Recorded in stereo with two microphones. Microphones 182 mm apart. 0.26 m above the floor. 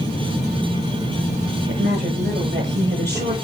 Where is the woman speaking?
70° right (ahead or behind), 5.5 m.